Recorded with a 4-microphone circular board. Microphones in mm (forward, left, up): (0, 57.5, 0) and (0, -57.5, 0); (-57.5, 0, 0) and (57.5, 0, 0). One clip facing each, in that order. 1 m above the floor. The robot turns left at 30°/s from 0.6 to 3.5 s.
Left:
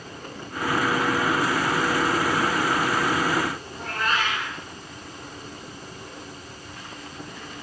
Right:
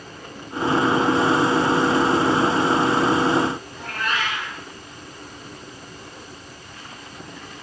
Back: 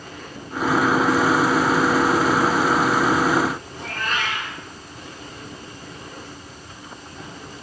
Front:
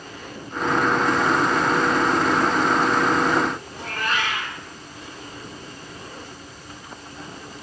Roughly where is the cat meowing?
Ahead left.